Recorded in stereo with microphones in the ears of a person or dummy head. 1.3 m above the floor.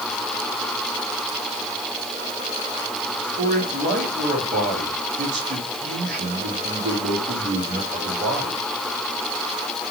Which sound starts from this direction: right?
A man speaking, at 3.4 s.